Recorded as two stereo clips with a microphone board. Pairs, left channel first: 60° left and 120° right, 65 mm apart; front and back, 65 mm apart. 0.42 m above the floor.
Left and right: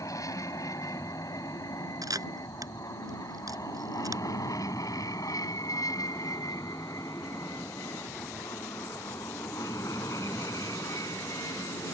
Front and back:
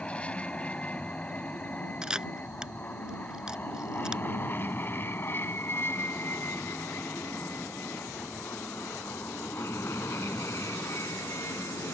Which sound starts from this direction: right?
A camera shutter, at 2.0 s.